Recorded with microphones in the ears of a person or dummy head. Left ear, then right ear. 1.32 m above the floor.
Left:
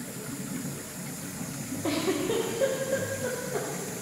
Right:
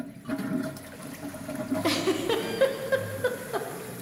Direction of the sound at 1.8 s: 55° right (ahead or behind).